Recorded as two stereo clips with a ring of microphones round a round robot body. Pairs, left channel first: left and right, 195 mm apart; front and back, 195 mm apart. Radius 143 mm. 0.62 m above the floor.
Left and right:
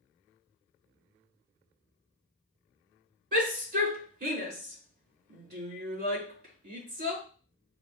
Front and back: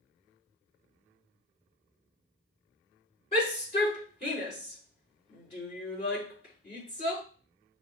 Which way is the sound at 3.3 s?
65° right.